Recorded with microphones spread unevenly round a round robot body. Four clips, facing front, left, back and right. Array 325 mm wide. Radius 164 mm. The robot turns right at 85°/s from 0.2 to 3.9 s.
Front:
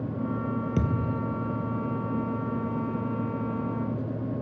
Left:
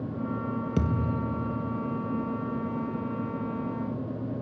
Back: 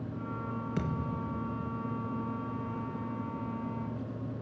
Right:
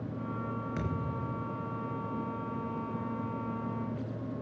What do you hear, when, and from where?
0.8 s a thud: 50° left, 2 m; by 1.7 s 130° left, 2 m